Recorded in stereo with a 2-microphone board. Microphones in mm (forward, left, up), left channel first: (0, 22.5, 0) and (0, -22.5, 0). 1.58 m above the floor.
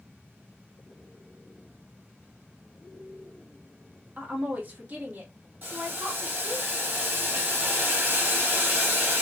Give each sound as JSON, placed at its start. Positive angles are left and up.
{"t": 4.2, "sound": "a woman speaking", "side_deg": -30, "distance_m": 1.3}
{"t": 5.6, "sound": "boiling", "side_deg": -40, "distance_m": 3.0}